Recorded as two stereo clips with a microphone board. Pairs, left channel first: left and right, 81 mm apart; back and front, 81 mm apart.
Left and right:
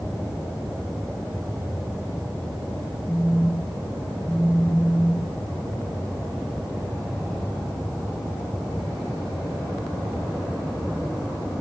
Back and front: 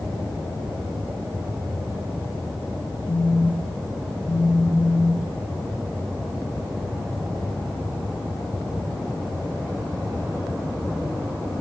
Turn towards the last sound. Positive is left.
turn(degrees=-170)